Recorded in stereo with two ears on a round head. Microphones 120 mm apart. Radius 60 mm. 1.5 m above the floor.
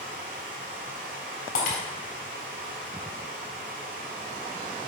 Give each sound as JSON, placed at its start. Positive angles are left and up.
{"t": 0.0, "sound": "running water", "side_deg": -60, "distance_m": 2.5}
{"t": 1.6, "sound": "breaking glass", "side_deg": 65, "distance_m": 4.0}